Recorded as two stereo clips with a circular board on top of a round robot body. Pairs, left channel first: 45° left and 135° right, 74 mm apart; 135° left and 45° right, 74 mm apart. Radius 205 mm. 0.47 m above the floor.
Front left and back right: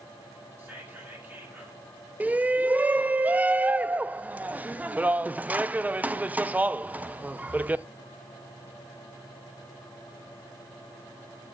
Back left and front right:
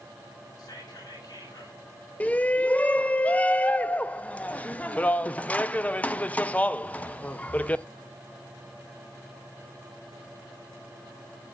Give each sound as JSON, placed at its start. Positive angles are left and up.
{"t": 0.6, "sound": "whispering", "azimuth_deg": 160, "distance_m": 4.0}
{"t": 2.2, "sound": "a shout", "azimuth_deg": 180, "distance_m": 0.7}